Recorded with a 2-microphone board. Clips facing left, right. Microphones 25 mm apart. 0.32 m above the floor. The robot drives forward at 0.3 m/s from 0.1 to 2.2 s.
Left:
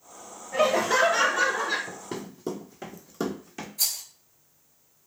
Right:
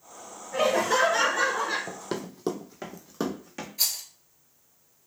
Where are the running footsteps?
65° right (ahead or behind), 0.7 m; by 3.7 s 5° right (ahead or behind), 1.2 m.